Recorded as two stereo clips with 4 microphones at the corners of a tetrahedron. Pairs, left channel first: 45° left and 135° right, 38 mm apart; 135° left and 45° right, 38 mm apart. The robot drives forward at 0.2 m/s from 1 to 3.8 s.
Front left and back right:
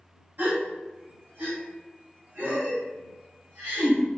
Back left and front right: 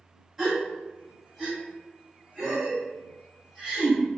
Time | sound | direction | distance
0.4 | a gasp | 120° right | 1.9 m